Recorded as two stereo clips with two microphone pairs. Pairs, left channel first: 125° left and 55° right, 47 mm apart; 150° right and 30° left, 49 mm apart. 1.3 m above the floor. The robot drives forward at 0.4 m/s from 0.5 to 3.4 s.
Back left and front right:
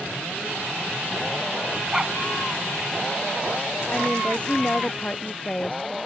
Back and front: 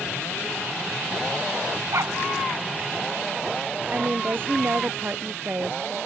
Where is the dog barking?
25° left.